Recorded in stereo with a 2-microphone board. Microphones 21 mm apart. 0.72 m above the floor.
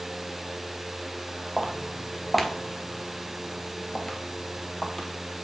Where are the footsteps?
10° right (ahead or behind), 1.3 m; by 5.1 s 25° left (ahead or behind), 1.5 m.